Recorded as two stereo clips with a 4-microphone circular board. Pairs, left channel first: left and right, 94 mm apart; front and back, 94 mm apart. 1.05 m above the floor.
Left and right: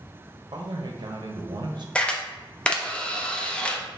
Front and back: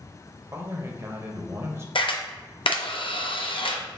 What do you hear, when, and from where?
0.5 s a man speaking: 120° right, 0.8 m
1.9 s a camera shutter: 15° left, 0.6 m